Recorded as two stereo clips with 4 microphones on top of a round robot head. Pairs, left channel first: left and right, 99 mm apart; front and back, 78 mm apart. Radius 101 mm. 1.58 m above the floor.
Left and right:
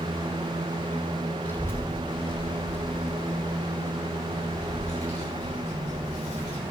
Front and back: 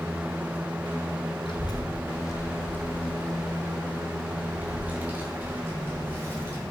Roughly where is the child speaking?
Ahead.